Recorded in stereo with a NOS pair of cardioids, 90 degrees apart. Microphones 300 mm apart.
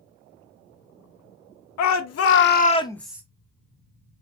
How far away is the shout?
About 0.9 m.